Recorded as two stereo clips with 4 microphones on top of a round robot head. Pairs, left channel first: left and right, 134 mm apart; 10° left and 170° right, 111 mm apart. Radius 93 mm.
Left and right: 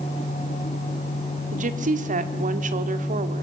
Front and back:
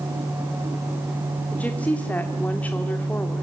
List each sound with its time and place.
1.5 s a woman speaking: 65° right, 1.9 m